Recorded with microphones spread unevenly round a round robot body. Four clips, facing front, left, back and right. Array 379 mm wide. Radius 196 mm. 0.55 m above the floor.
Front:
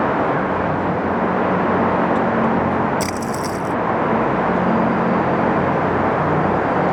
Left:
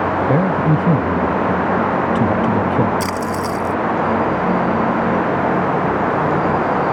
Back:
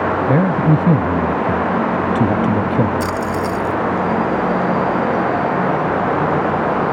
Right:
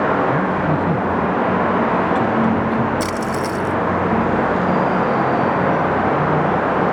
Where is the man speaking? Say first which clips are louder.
Left 2 dB, back 4 dB; 155° left.